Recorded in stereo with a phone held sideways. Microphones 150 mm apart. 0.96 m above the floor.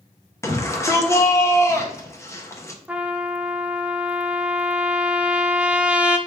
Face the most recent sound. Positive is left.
turn(degrees=-10)  # may be behind; listen again after turning